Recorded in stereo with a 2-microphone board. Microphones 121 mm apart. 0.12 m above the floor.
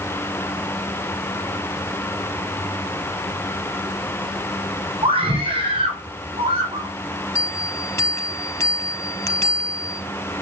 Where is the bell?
20° left (ahead or behind), 1.7 m.